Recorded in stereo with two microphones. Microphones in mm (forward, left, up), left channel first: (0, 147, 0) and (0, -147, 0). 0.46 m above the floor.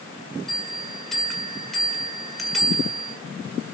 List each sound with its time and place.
0.5 s a bell: centre (ahead or behind), 2.0 m